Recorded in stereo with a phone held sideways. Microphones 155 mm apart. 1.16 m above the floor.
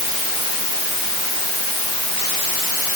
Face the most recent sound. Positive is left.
No sound to turn to.